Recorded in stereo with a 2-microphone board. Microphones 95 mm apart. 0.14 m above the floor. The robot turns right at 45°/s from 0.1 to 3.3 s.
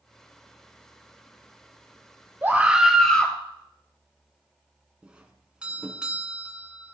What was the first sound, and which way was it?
A scream, 25° right.